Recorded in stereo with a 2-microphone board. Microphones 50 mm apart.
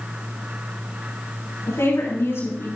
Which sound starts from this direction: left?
A woman speaking, at 1.7 s.